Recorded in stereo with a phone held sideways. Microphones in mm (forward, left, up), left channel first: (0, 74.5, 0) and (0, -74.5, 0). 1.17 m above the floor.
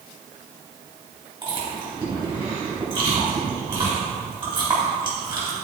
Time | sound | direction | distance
1.4 | chewing | 35° right (ahead or behind) | 3.5 m